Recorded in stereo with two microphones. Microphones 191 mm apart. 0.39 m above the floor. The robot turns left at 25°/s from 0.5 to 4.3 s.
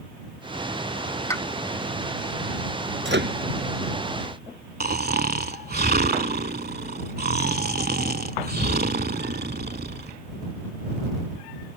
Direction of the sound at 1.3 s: 15° left (ahead or behind).